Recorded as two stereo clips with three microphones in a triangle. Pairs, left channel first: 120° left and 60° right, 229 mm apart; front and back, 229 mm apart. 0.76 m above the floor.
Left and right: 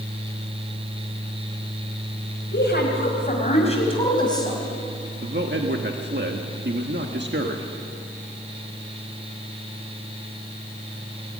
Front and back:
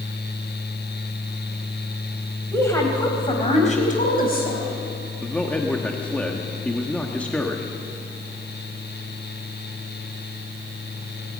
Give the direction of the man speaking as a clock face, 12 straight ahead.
3 o'clock.